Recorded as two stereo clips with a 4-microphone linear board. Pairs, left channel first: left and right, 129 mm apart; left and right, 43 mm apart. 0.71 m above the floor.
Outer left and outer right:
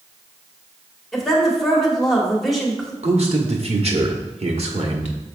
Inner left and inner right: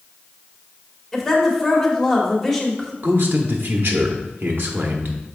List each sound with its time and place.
1.1 s a woman speaking: centre (ahead or behind), 1.9 m
3.0 s a man speaking: 60° right (ahead or behind), 1.4 m